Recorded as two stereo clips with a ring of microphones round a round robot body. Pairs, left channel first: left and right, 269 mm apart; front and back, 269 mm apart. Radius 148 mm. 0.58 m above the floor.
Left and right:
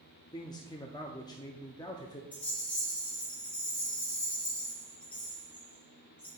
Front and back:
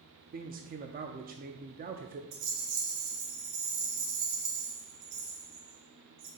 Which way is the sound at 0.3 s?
155° left.